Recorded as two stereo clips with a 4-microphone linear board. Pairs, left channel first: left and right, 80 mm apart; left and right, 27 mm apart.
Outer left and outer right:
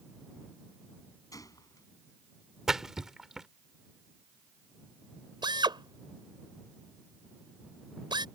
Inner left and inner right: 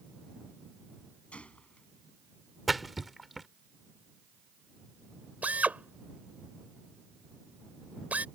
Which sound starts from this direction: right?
A drill, at 5.4 s.